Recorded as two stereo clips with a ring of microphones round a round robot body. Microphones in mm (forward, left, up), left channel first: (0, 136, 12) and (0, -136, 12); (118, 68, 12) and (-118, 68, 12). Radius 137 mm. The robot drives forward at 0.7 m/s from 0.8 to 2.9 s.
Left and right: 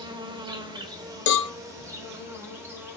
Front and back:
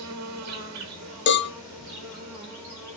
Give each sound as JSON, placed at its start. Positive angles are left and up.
{"t": 0.0, "sound": "an insect", "azimuth_deg": -165, "distance_m": 1.4}
{"t": 1.3, "sound": "a cowbell", "azimuth_deg": 40, "distance_m": 0.7}